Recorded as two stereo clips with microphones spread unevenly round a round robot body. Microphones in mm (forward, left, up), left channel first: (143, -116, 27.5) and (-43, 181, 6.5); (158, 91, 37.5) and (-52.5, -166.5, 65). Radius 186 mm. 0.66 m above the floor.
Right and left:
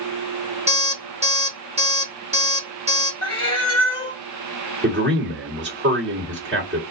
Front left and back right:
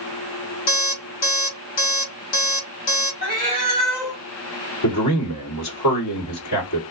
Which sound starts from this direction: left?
A man speaking, at 4.8 s.